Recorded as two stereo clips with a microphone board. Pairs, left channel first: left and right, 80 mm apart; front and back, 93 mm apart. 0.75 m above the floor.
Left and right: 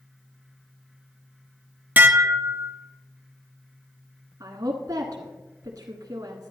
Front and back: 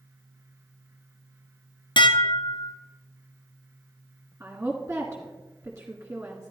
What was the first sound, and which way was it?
Dishes clattering, 25° right.